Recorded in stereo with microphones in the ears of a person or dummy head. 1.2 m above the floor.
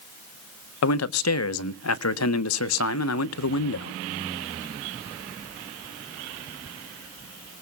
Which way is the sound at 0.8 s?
85° left.